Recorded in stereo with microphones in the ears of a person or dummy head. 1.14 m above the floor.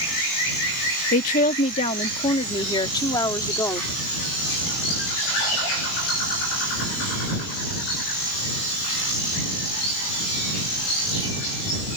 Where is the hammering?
No hammering in this recording.